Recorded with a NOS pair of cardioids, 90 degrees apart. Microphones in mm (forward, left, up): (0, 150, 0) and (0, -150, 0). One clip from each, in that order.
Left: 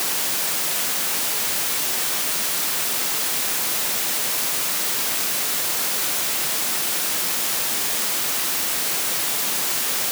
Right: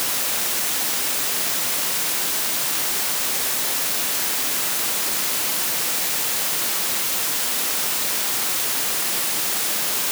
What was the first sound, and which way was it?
Only background noise.